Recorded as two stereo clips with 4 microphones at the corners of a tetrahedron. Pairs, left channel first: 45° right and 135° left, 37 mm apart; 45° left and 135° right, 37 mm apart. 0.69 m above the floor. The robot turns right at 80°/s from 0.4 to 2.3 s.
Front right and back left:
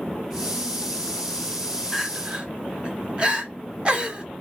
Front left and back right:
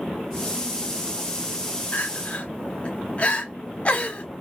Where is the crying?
55° left, 0.6 m; by 4.2 s 85° left, 0.6 m.